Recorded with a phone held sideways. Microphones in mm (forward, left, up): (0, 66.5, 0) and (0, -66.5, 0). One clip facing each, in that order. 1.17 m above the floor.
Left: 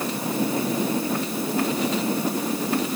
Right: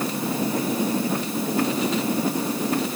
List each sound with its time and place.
Only background noise.